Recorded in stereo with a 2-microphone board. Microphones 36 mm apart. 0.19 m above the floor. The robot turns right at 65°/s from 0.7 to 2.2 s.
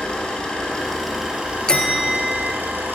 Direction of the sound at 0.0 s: 155° left.